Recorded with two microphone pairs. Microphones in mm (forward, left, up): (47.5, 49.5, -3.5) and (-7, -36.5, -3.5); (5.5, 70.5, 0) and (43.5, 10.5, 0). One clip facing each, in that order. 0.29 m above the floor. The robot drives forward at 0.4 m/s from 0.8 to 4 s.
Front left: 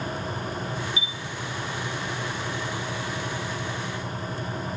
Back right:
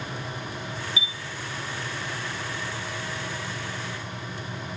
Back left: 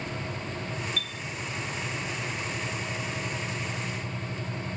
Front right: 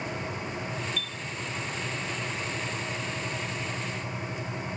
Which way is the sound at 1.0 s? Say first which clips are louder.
Even, back left 1 dB; 100° left.